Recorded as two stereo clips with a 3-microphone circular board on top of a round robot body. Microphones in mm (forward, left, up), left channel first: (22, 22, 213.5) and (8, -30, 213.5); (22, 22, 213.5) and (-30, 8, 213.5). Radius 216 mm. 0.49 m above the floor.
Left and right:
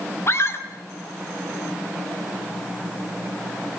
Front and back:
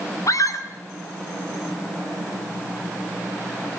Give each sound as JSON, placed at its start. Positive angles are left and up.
{"t": 0.3, "sound": "a scream", "azimuth_deg": 35, "distance_m": 4.5}